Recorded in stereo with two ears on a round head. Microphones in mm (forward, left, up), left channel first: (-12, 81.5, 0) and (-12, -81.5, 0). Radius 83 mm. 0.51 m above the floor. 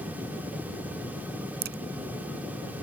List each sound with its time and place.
1.6 s a crack: 55° right (ahead or behind)